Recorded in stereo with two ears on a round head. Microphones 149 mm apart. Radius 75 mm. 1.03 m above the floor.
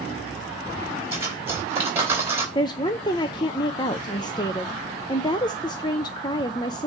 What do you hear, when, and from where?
1.1 s cutlery clinking: 15° right (ahead or behind), 4 m
2.5 s a woman speaking: 25° left (ahead or behind), 0.6 m